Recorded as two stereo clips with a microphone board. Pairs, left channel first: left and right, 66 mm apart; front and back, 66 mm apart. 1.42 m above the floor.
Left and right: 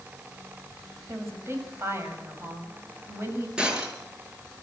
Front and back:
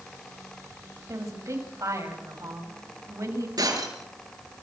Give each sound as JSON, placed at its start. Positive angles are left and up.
{"t": 1.1, "sound": "a woman speaking", "azimuth_deg": -145, "distance_m": 7.0}
{"t": 3.6, "sound": "breaking glass", "azimuth_deg": -170, "distance_m": 6.5}